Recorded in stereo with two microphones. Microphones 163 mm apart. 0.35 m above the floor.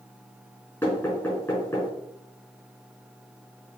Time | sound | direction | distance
0.8 | knocking | 10° left (ahead or behind) | 4 m